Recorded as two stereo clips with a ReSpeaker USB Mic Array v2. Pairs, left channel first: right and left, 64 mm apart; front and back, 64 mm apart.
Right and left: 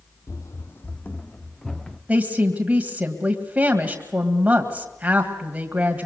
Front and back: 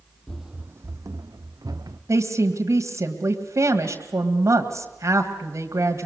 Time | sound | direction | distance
0.3 | running footsteps | 75° right | 0.5 m
2.1 | a woman speaking | 155° left | 1.9 m